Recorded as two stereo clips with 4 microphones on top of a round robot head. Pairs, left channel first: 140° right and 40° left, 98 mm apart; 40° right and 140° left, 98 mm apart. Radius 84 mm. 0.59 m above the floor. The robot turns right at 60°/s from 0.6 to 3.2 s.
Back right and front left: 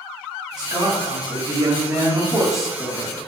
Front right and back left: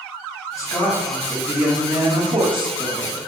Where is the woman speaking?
10° left, 1.6 m; by 3.3 s 165° left, 1.6 m.